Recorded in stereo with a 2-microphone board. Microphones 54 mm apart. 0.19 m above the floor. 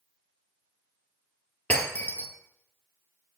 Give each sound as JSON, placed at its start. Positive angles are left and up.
{"t": 1.7, "sound": "breaking glass", "side_deg": 30, "distance_m": 1.8}